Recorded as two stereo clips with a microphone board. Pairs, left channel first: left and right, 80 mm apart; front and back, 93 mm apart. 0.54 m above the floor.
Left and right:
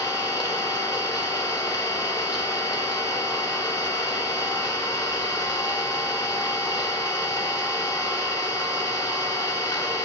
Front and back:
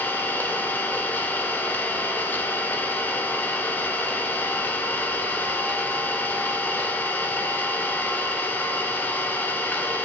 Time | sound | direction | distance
0.0 | an engine running | 65° left | 1.2 m